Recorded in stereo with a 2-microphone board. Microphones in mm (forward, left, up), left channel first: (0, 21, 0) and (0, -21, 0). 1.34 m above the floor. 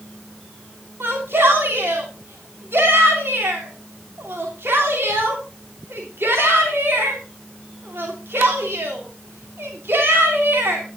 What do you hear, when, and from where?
1.0 s a shout: 65° right (ahead or behind), 3 m